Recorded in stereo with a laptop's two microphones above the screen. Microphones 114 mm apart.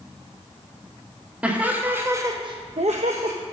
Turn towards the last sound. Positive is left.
turn(degrees=-55)  # may be behind; listen again after turning